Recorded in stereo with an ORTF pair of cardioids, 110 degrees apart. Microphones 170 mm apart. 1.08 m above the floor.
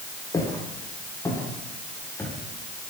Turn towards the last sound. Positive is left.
turn(degrees=10)